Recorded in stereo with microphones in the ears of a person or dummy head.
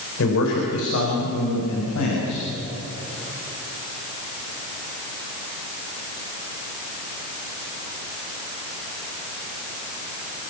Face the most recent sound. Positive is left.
turn(degrees=85)